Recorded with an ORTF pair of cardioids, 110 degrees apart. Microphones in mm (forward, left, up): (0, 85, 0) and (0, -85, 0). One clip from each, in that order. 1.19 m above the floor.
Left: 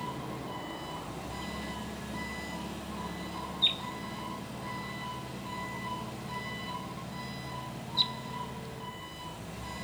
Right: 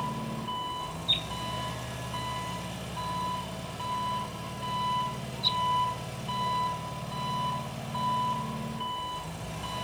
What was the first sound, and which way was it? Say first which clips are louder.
An engine running: right 4 dB; 60° right.